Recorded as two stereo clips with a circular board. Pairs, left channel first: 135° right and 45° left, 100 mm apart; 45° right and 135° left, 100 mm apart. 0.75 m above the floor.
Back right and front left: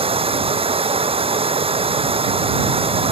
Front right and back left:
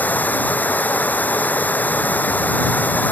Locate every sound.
0.0 s running water: 30° left